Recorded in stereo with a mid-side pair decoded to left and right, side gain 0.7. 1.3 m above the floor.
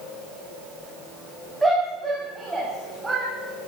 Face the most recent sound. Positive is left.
turn(degrees=-20)